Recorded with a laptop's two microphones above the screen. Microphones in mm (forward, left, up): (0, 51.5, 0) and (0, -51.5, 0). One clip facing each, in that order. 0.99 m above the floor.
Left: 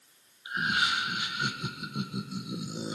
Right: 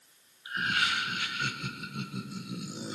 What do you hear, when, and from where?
0.5 s laughter: 20° left (ahead or behind), 0.9 m